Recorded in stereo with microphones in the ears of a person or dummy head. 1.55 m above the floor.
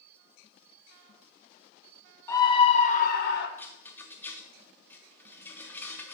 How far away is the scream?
About 1.4 m.